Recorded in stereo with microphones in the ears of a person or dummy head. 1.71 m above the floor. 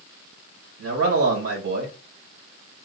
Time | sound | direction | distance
0.8 | a man speaking | 70° right (ahead or behind) | 1.9 m